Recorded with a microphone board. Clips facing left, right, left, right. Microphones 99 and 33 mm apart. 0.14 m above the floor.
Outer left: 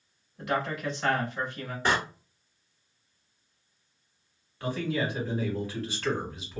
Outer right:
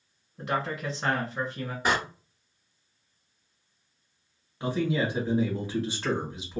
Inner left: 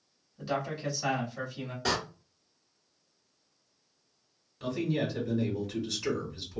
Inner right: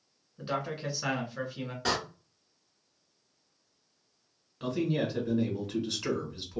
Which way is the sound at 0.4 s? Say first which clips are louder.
Even, inner left 1 dB; 35° right (ahead or behind).